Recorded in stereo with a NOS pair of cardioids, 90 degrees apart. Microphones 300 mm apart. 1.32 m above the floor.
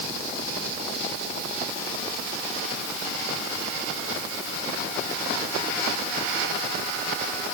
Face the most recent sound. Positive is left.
No sound to turn to.